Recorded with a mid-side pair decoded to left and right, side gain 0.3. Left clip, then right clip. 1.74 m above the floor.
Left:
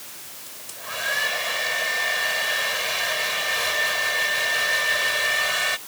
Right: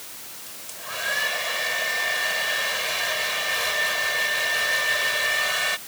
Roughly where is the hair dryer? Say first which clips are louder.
Left 1 dB; ahead.